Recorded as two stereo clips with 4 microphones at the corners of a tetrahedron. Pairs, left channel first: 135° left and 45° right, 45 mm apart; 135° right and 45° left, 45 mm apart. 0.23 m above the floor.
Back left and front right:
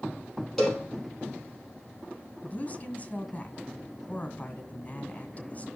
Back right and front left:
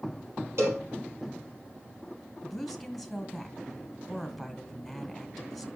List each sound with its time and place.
0.6 s a cowbell: 50° left, 5.5 m
2.4 s a woman speaking: 135° left, 1.7 m